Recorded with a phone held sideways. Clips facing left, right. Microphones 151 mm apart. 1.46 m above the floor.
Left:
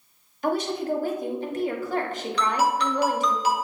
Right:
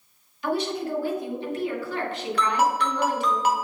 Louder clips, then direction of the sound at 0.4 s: Left 1 dB; 45° left (ahead or behind).